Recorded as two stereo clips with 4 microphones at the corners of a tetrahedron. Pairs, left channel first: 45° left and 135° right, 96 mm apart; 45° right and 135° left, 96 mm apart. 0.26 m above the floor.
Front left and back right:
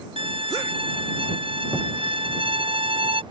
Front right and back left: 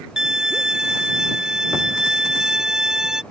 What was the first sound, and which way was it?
A violin, 140° right.